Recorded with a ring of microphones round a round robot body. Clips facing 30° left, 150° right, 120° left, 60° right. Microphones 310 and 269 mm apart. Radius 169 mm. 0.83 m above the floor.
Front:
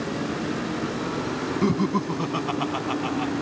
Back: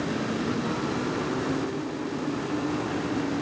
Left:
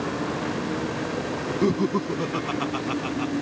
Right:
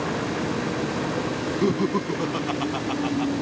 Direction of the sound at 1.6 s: 35° left.